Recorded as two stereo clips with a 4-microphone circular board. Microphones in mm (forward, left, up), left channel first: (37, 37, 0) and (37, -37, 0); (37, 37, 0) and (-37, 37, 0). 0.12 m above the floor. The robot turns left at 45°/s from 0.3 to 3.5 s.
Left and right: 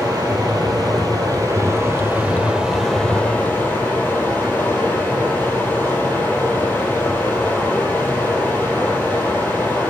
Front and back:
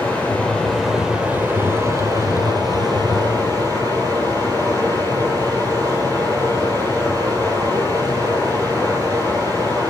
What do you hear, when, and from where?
0.0 s running water: 65° right, 3 m; by 9.9 s 150° left, 3 m